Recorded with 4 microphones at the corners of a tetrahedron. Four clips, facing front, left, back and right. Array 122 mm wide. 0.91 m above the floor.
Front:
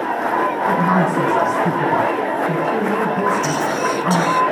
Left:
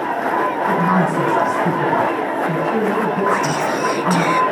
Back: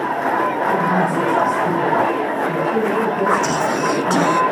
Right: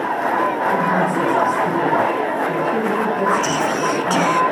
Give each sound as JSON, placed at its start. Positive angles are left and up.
{"t": 0.7, "sound": "a woman speaking", "azimuth_deg": 45, "distance_m": 7.5}
{"t": 3.3, "sound": "whispering", "azimuth_deg": -170, "distance_m": 0.8}